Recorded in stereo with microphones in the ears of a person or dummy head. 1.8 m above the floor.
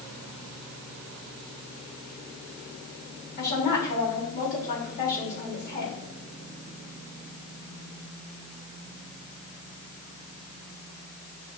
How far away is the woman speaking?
About 4.5 m.